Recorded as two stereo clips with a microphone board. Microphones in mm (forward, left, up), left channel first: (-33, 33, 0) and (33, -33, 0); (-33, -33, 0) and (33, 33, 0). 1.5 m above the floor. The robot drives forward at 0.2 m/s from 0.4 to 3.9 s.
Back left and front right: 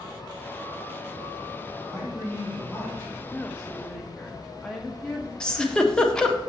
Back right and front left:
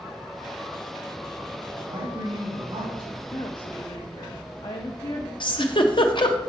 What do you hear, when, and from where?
1.9 s a man speaking: 80° left, 3 m; by 3.2 s 85° left, 3 m
3.3 s a woman speaking: 150° right, 0.6 m; by 5.3 s 155° right, 0.7 m
5.4 s a giggle: 145° right, 0.6 m